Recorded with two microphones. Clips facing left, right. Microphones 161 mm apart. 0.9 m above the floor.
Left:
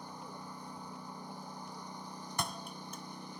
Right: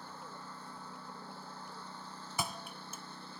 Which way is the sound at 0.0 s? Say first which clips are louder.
Left 2 dB; 15° left (ahead or behind).